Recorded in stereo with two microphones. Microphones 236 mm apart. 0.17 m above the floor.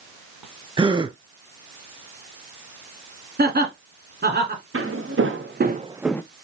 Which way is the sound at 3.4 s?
45° right (ahead or behind).